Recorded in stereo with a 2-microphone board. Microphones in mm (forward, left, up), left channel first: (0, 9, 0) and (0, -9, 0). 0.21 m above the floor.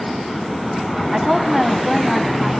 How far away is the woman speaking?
About 1.3 m.